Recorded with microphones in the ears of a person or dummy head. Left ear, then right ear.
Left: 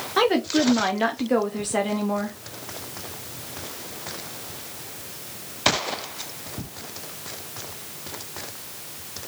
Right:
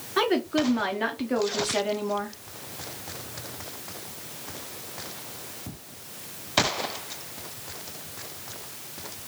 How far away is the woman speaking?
About 0.6 m.